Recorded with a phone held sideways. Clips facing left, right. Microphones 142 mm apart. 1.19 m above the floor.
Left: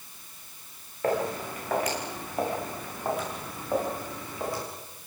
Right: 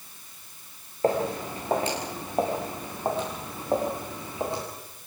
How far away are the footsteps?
About 7 m.